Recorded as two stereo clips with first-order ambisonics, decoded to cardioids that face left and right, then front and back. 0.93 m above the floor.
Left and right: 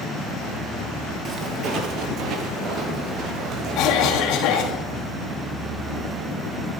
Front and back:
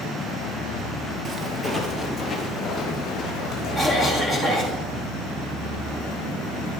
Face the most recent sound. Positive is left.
turn(degrees=105)